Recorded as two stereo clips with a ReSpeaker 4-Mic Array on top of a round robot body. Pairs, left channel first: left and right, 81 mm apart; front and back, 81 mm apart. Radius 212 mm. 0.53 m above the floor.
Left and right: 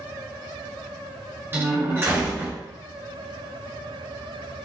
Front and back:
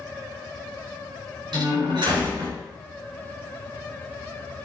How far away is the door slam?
About 6 m.